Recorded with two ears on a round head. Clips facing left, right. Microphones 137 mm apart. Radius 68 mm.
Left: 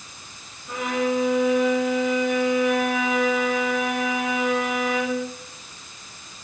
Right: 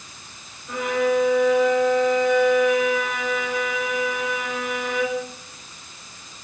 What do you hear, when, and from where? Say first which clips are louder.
0.7 s a violin: right 3 dB; 5° left (ahead or behind), 4.5 m